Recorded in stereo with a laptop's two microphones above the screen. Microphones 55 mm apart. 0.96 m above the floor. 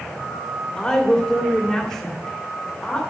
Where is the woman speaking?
10° left (ahead or behind), 2.5 m.